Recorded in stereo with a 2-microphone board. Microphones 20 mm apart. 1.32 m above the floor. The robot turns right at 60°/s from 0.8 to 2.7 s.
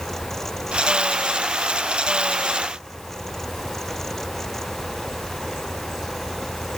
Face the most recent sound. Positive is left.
No sound to turn to.